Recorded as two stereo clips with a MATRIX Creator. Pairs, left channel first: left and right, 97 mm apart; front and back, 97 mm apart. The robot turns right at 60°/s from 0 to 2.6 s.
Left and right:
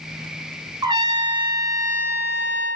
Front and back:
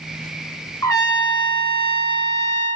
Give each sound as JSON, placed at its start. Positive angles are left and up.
{"t": 0.8, "sound": "a trumpet", "azimuth_deg": -60, "distance_m": 3.0}